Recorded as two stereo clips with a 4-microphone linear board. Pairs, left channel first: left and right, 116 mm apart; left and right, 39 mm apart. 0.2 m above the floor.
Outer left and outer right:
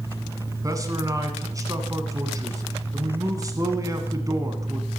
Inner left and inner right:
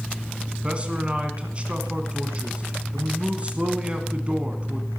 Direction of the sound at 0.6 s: 25° right (ahead or behind).